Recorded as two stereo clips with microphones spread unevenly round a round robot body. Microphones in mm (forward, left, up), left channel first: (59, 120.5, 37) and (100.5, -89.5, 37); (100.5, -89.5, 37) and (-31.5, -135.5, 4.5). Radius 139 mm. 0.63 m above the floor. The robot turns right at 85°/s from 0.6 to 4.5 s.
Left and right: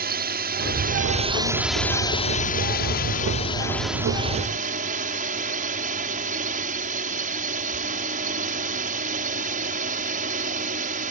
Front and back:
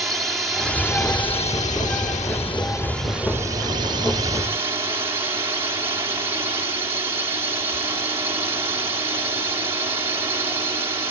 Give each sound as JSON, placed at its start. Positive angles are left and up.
{"t": 0.0, "sound": "a drone", "azimuth_deg": -85}